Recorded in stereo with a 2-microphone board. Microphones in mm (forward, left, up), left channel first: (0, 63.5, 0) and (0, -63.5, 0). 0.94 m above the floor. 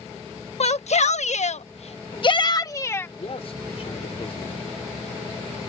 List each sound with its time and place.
0.6 s a shout: 60° left (ahead or behind); by 3.1 s 20° left (ahead or behind)
3.2 s a man speaking: 55° left (ahead or behind)